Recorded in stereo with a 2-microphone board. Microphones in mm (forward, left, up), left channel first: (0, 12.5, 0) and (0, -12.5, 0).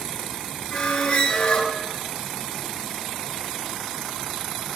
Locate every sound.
0.7 s a squeak: 45° left (ahead or behind), 1.8 m